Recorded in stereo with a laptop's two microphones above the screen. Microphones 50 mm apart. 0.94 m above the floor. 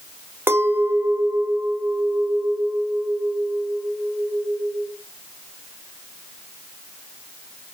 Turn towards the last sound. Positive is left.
turn(degrees=-50)  # may be behind; listen again after turning